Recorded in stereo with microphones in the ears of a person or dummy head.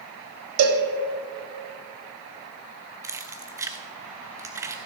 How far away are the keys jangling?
About 0.7 m.